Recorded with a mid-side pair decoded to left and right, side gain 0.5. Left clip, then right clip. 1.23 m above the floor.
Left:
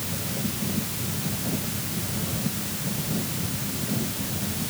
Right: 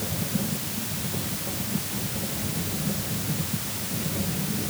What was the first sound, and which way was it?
Only background noise.